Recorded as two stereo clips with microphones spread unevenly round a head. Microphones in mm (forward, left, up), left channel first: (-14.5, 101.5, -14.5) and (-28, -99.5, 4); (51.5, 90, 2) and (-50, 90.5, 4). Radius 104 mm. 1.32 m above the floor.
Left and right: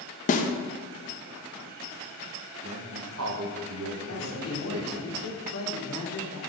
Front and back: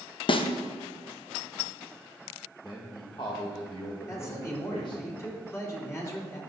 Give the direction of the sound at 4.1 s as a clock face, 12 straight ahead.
10 o'clock.